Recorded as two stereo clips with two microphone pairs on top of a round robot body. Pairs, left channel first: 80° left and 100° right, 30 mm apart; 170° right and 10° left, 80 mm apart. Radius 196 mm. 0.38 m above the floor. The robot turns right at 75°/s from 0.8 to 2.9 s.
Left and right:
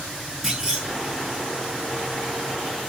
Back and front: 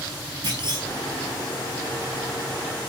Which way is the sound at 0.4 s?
20° right.